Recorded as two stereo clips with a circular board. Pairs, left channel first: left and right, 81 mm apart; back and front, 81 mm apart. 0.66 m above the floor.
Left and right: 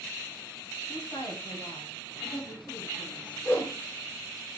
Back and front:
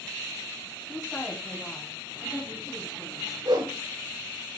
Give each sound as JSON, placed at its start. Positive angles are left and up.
{"t": 0.9, "sound": "a woman speaking", "azimuth_deg": 120, "distance_m": 4.0}
{"t": 3.5, "sound": "a whoosh", "azimuth_deg": 30, "distance_m": 9.0}